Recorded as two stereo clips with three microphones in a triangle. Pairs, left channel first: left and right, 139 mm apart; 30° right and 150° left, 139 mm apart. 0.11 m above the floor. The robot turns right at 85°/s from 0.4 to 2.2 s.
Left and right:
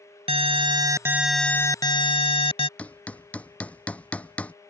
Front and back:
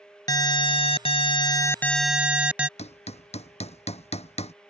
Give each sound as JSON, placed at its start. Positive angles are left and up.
{"t": 0.3, "sound": "an alarm", "azimuth_deg": -80}
{"t": 2.8, "sound": "hammering", "azimuth_deg": 10}